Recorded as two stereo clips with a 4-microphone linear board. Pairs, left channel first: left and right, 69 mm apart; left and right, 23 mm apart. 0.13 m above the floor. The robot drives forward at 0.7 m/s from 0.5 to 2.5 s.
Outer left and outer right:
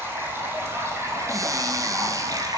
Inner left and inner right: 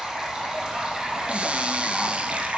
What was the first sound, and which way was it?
Running water, 35° right (ahead or behind).